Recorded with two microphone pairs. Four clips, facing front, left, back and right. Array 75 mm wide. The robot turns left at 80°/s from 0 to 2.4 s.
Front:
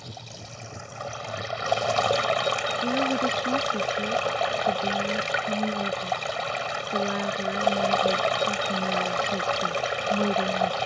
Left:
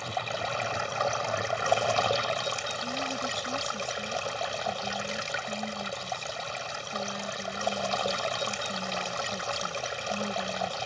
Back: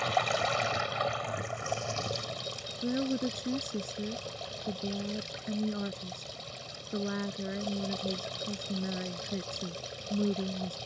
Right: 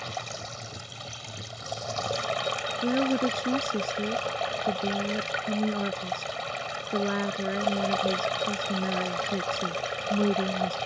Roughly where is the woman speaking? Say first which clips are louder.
Right 12 dB, front 4 dB; right.